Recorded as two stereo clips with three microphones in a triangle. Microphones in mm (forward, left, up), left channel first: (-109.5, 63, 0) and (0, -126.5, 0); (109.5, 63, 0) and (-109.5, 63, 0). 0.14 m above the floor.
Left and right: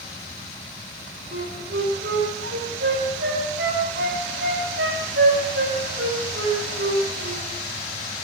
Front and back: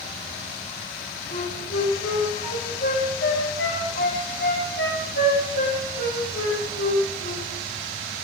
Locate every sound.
1.3 s a flute: 30° right, 5.5 m